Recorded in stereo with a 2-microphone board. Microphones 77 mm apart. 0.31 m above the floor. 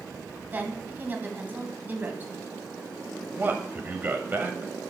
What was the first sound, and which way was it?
A woman speaking, 25° right (ahead or behind).